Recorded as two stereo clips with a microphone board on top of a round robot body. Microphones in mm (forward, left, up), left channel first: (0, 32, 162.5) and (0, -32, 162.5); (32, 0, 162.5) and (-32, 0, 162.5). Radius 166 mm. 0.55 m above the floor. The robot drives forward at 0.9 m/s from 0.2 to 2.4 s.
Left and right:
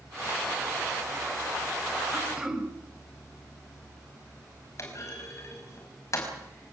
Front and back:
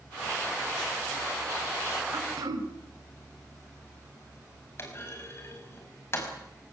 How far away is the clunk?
About 5.5 m.